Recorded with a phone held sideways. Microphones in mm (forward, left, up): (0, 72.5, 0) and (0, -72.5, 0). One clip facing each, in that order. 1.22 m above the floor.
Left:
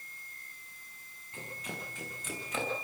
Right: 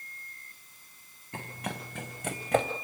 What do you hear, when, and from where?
1.3 s running footsteps: 75° right (ahead or behind), 4 m; by 2.7 s 70° right (ahead or behind), 3.5 m